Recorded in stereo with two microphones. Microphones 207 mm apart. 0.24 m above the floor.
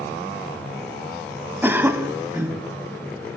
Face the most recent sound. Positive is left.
turn(degrees=-10)  # may be behind; listen again after turning